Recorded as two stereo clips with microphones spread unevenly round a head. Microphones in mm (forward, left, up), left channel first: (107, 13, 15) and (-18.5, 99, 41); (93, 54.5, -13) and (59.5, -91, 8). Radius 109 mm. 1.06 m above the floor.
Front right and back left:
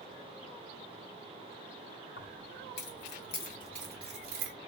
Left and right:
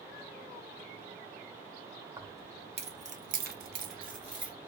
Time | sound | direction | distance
2.2 | keys jangling | 45° right | 2.5 m